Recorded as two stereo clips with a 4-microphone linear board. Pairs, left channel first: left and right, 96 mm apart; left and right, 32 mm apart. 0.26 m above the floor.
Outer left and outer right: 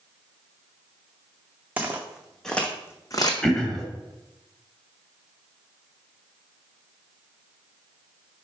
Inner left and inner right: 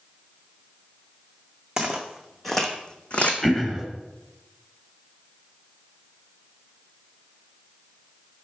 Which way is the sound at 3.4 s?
5° left (ahead or behind).